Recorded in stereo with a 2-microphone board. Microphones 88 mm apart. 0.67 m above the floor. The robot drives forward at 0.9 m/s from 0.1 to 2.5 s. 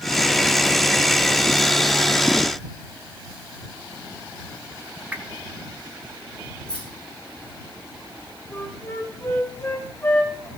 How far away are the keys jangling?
About 6.5 m.